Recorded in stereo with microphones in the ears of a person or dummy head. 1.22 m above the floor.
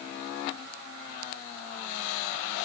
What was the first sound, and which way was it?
Only background noise.